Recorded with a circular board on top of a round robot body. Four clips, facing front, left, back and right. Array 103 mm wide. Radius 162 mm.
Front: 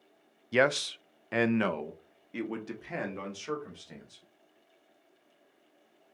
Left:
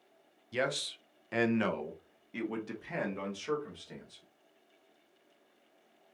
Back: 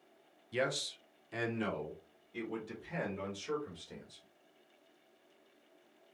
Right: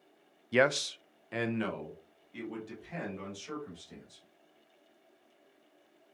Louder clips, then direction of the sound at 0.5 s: Right 7 dB, front 9 dB; 45° right.